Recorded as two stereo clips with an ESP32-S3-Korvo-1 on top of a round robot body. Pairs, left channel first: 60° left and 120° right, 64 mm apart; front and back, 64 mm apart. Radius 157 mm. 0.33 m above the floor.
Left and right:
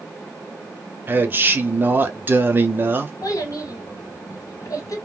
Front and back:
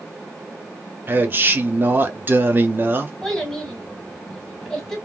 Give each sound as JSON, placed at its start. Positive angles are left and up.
{"t": 1.1, "sound": "a man speaking", "azimuth_deg": -150, "distance_m": 1.1}
{"t": 3.2, "sound": "a child speaking", "azimuth_deg": 85, "distance_m": 2.0}